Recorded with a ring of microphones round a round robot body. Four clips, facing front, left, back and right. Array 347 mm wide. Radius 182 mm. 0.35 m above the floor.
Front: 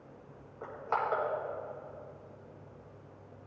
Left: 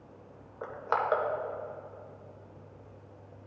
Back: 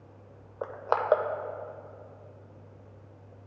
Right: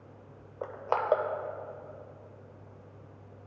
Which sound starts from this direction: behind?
Crushing, at 0.6 s.